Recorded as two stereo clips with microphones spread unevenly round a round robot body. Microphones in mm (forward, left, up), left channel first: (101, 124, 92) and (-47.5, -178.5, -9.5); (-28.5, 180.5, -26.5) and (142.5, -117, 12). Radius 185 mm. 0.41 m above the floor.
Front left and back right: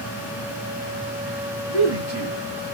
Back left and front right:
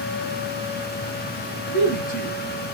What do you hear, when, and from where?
1.7 s a man speaking: 170° left, 1.7 m